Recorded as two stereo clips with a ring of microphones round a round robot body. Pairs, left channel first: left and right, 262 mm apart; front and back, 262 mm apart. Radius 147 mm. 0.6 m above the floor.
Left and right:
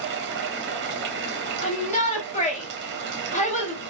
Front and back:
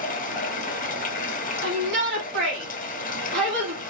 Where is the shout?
145° left, 1.4 m.